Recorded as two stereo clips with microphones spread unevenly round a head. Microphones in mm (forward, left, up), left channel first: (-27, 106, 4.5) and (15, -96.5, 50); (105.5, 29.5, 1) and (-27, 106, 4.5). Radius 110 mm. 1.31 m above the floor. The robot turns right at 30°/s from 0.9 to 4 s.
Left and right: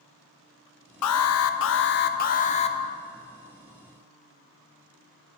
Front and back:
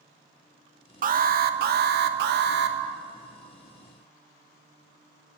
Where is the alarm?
115° left, 0.6 m; by 2.8 s 170° left, 0.6 m.